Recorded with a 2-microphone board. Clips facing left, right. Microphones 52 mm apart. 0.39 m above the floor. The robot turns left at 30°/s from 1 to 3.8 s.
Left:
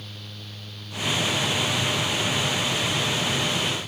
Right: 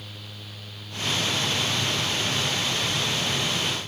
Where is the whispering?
I don't hear whispering.